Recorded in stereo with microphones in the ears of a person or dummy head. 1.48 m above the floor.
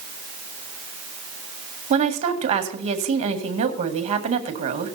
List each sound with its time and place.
1.9 s a woman speaking: 40° right (ahead or behind), 1.9 m